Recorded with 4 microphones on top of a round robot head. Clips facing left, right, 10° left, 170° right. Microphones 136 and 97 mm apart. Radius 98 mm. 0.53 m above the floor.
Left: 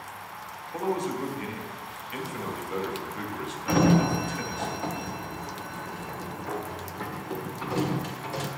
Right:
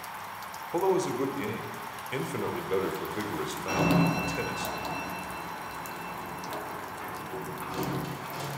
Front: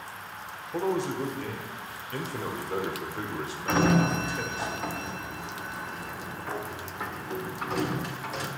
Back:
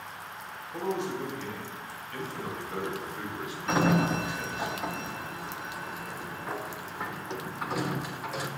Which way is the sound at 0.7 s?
45° right.